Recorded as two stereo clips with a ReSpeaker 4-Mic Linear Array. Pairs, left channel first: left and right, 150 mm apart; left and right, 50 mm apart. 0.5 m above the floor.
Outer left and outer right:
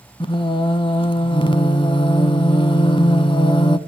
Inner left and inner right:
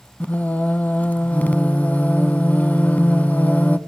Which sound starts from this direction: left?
Singing, at 0.2 s.